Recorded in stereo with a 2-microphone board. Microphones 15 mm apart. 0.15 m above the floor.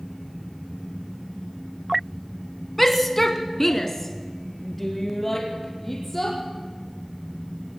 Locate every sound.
2.8 s a shout: 15° left (ahead or behind), 1.2 m